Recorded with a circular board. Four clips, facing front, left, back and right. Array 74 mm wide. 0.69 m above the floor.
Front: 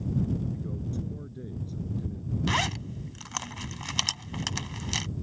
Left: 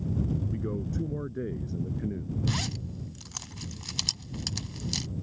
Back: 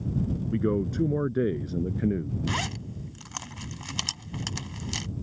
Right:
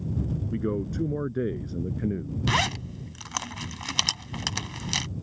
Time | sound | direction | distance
0.5 | a man speaking | 155° right | ?
2.5 | a zipper | 75° right | ?